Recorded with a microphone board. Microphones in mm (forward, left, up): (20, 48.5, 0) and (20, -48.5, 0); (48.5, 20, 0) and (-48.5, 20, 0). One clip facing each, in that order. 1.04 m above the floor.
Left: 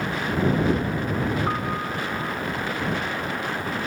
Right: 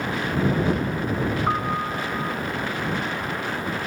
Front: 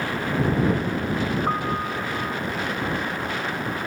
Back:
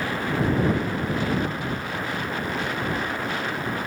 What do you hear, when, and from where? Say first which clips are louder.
1.5 s a piano: right 2 dB, front 4 dB; 20° right